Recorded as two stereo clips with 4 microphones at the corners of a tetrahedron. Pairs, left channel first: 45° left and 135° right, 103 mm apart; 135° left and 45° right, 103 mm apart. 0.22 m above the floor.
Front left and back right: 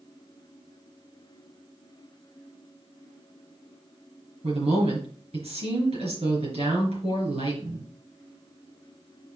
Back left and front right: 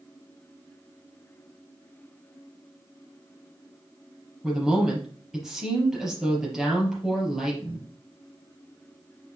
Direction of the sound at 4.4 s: 130° right.